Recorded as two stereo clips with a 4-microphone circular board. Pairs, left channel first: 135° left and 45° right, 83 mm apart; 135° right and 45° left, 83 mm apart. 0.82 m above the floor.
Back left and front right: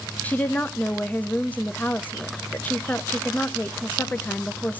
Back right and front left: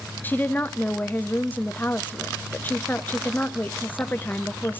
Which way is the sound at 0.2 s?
175° right.